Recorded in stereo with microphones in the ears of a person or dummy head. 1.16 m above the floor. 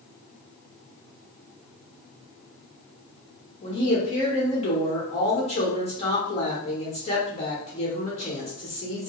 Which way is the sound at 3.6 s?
30° left (ahead or behind).